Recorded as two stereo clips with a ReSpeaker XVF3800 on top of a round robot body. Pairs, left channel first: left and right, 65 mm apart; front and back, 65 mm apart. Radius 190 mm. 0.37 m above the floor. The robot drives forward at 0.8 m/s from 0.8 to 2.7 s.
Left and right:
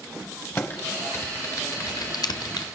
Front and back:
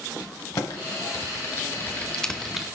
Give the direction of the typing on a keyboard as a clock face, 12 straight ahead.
11 o'clock.